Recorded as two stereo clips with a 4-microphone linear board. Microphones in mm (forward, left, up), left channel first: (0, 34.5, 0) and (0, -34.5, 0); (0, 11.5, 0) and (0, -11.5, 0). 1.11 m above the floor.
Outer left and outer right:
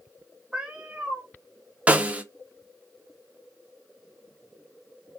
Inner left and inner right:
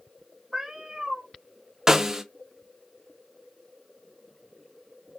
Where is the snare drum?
20° right (ahead or behind), 0.6 m.